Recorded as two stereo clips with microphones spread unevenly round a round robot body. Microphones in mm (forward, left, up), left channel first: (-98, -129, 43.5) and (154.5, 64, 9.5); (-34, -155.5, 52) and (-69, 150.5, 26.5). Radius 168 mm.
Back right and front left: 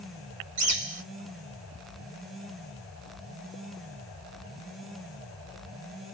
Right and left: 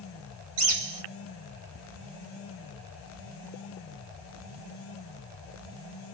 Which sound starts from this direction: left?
A bird, at 0.6 s.